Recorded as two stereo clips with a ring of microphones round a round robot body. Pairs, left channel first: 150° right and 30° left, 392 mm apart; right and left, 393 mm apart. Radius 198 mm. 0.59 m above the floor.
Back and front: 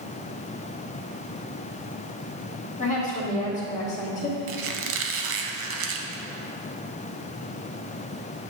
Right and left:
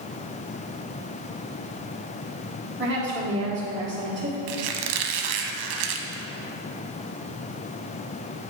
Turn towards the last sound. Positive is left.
turn(degrees=80)